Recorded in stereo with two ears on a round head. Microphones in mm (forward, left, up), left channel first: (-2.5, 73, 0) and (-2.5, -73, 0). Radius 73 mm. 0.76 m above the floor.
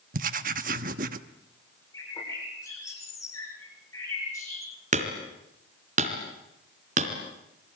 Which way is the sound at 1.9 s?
20° left (ahead or behind).